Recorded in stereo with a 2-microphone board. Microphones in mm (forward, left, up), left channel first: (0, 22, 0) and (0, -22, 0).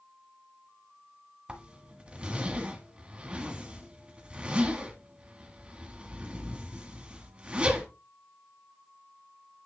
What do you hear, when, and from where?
1.5 s a zipper: 25° right (ahead or behind), 1.6 m